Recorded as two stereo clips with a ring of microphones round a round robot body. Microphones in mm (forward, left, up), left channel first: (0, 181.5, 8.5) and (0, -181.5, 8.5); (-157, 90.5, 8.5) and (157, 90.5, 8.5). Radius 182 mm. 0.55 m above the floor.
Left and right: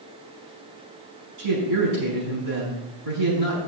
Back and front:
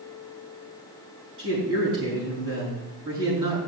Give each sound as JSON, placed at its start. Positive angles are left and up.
{"t": 1.4, "sound": "a man speaking", "azimuth_deg": -60, "distance_m": 5.0}